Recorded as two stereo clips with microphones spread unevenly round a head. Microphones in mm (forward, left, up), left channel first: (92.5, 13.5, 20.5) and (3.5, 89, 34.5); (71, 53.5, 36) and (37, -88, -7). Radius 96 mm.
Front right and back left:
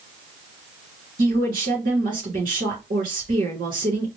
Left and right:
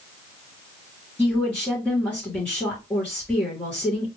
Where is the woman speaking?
160° left, 3 m.